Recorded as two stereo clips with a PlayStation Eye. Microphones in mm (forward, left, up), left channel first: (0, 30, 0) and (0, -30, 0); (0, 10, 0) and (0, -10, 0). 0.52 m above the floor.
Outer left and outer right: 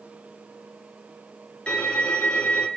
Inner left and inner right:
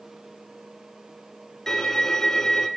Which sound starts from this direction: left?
A violin, at 1.7 s.